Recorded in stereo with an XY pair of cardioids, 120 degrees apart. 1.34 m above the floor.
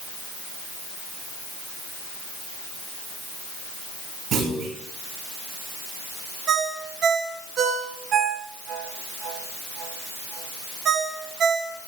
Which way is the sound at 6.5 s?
60° right.